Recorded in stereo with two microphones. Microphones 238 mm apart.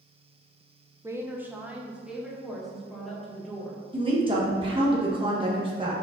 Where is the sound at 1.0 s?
15° right (ahead or behind), 0.8 m; by 3.8 s centre (ahead or behind), 2.5 m.